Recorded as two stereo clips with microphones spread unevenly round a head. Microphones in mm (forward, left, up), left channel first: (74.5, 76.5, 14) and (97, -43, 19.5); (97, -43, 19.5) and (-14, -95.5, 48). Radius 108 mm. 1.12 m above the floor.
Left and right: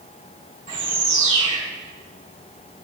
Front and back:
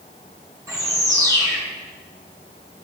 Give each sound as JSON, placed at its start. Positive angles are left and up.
{"t": 0.7, "sound": "a bird", "azimuth_deg": -90, "distance_m": 2.0}